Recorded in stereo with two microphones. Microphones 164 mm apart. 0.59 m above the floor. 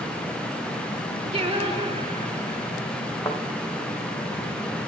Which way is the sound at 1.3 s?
35° right (ahead or behind).